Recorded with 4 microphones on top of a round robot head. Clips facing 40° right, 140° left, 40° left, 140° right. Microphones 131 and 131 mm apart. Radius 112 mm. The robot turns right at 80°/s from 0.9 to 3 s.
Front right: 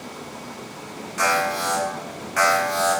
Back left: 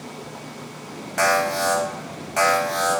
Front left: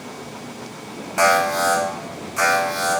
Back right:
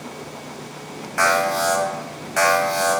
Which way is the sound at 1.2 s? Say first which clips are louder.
Back left 2 dB, front left 2 dB; 105° left.